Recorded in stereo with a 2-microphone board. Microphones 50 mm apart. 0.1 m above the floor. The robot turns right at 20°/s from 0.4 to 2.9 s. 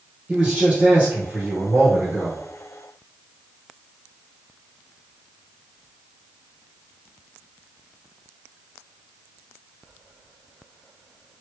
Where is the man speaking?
155° right, 1.6 m; by 2.4 s 115° right, 1.6 m.